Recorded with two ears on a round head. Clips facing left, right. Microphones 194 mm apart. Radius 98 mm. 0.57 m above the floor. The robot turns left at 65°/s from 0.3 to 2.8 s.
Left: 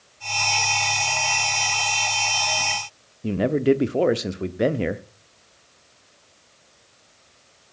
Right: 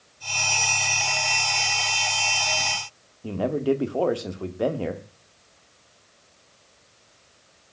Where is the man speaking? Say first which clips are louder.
Left 4 dB; 25° left (ahead or behind), 0.9 m.